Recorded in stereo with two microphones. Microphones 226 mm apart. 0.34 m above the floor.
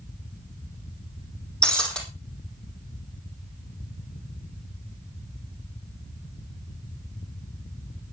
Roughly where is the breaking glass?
Centre.